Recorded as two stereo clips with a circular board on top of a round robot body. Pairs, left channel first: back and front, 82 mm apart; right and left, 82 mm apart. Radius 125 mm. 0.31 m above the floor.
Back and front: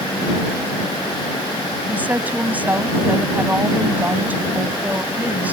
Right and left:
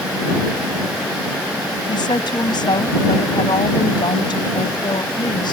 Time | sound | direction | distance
1.9 | a woman speaking | 70° right | ?